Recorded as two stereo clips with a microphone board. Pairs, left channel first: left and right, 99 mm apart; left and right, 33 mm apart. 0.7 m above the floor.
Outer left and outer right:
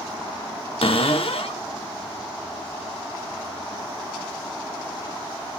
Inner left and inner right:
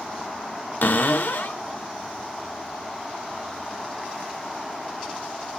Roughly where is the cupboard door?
Left.